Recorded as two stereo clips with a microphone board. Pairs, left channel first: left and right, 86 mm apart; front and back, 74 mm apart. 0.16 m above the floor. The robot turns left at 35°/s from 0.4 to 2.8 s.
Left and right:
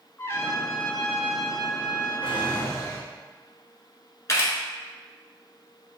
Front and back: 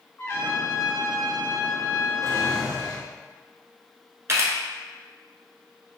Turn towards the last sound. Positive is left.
turn(degrees=140)